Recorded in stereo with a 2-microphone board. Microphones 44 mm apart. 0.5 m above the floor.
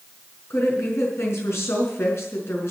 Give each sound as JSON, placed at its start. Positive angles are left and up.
{"t": 0.5, "sound": "a woman speaking", "side_deg": 70, "distance_m": 5.5}